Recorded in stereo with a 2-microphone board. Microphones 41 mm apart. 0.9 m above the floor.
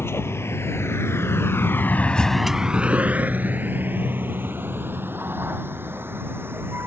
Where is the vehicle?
80° left; by 6.9 s 60° right (ahead or behind).